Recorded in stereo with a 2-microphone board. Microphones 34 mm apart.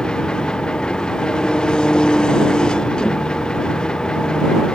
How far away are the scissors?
No scissors in this recording.